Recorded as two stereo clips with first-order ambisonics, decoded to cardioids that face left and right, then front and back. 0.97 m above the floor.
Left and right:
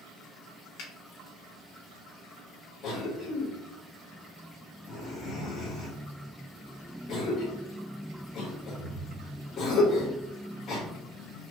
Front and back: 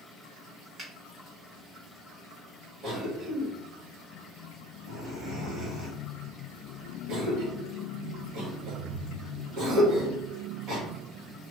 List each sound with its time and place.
0.8 s a finger snap: 105° left, 1.5 m
2.8 s a cough: 135° left, 1.5 m